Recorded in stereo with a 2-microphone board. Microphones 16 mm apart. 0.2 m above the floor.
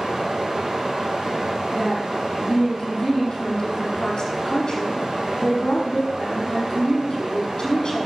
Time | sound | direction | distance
0.0 | running water | 50° right (ahead or behind) | 3.5 m
1.7 | a woman speaking | 45° left (ahead or behind) | 6 m